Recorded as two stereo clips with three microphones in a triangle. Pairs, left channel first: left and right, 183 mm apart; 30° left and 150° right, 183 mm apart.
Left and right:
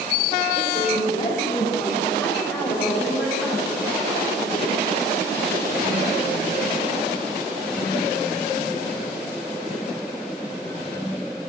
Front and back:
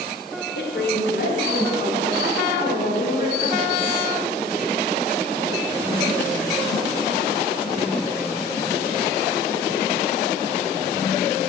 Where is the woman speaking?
40° left, 3.5 m; by 4.0 s 10° right, 4 m.